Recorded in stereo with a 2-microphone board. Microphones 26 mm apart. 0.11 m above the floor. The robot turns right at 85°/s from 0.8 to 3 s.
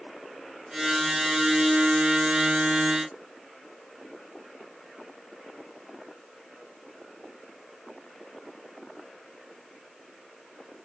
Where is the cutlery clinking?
No cutlery clinking in this recording.